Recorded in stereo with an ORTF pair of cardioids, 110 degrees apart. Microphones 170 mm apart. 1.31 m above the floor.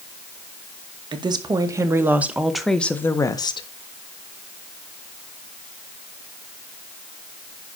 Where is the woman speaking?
25° right, 2 m; by 3.7 s 30° left, 1.5 m.